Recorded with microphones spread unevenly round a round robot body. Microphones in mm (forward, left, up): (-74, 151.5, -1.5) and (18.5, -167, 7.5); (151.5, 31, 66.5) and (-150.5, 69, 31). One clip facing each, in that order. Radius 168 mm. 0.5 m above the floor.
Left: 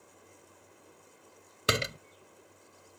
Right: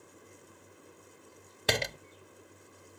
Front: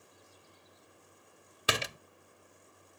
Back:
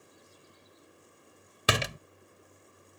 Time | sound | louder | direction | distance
1.7 | a door slam | left 1 dB, back 5 dB | 175° right | ?